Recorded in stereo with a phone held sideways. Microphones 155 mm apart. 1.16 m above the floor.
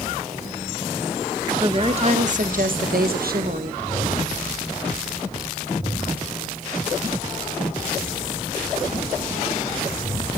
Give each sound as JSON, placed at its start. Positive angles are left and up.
{"t": 1.6, "sound": "a woman speaking", "side_deg": -35, "distance_m": 1.5}